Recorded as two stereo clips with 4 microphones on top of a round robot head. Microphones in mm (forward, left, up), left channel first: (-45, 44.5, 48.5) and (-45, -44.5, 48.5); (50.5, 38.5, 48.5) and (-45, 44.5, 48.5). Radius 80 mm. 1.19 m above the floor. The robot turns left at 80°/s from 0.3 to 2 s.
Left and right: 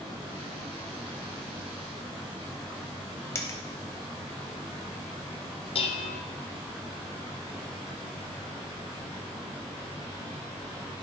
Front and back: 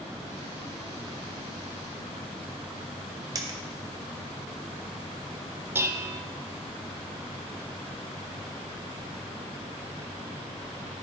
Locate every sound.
3.4 s a dropped coin: 135° left, 0.8 m
5.8 s dishes clattering: 110° left, 0.6 m